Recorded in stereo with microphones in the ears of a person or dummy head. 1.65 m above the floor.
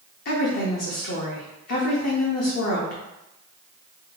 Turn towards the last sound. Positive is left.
turn(degrees=50)  # may be behind; listen again after turning